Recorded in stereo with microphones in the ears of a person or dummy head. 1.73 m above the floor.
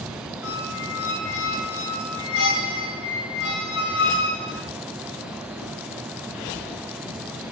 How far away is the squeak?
About 8.5 m.